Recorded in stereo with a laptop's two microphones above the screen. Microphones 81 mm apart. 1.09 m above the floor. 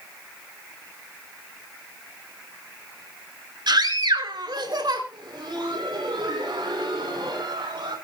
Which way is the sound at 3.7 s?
65° right (ahead or behind).